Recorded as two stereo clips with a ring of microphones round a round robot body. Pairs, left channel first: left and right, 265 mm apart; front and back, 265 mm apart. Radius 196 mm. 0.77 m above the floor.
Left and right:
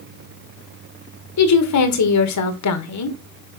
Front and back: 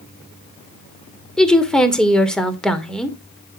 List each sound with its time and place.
1.4 s a woman speaking: 85° left, 2.5 m